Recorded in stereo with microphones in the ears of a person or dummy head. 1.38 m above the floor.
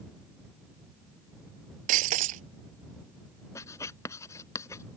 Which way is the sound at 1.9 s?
40° right (ahead or behind).